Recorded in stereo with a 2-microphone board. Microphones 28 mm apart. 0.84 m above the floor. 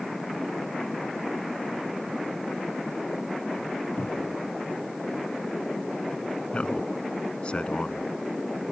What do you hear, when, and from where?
4.0 s a cupboard door: 70° left (ahead or behind)
6.5 s a man speaking: 40° left (ahead or behind)